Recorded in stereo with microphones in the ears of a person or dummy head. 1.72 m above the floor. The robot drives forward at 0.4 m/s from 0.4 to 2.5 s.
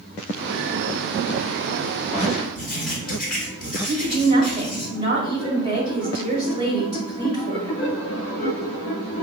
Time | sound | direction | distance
2.5 | writing | 5° left (ahead or behind) | 1.6 m
3.9 | a woman speaking | 35° right (ahead or behind) | 1.6 m